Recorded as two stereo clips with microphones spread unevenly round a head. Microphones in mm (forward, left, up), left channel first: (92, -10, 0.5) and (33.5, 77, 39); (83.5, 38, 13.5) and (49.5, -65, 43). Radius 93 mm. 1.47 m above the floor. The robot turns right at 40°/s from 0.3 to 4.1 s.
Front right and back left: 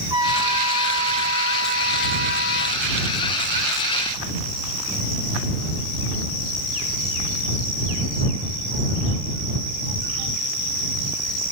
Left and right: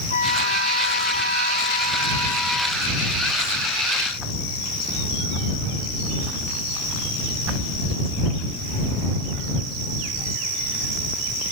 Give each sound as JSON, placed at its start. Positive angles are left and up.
{"t": 0.1, "sound": "a trumpet", "azimuth_deg": 75}